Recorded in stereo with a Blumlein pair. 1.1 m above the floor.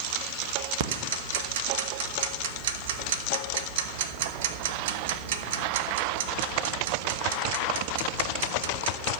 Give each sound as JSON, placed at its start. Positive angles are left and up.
{"t": 0.8, "sound": "ticking", "azimuth_deg": -55, "distance_m": 1.1}